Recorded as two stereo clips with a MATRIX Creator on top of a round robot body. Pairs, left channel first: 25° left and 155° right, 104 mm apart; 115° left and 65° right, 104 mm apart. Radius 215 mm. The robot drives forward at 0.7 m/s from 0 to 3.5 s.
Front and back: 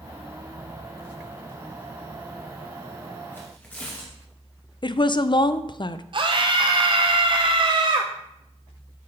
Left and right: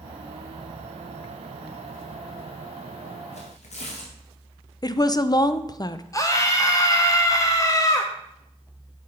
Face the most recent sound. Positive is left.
turn(degrees=170)